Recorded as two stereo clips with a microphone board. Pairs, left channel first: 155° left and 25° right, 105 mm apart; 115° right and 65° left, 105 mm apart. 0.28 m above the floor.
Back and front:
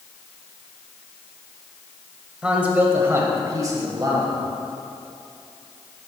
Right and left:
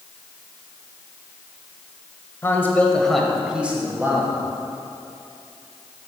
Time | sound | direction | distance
2.4 | a man speaking | 90° right | 0.9 m